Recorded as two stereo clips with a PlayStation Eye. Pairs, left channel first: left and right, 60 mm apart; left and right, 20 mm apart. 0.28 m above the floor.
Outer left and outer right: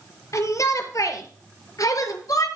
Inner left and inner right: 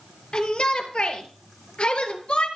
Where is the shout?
60° left (ahead or behind), 5 m; by 2.5 s 75° left (ahead or behind), 4.5 m.